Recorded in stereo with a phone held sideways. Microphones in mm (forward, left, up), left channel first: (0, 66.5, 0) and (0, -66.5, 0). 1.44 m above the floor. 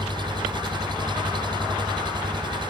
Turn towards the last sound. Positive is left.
turn(degrees=-35)  # may be behind; listen again after turning